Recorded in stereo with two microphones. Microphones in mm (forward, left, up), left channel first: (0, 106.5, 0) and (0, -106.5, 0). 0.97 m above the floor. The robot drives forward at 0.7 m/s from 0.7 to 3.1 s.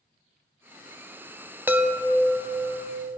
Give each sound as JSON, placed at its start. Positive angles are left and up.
{"t": 1.7, "sound": "a chime", "side_deg": -10, "distance_m": 0.7}